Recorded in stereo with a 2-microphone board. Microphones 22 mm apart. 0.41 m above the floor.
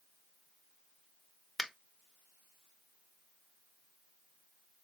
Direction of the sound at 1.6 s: 5° right (ahead or behind).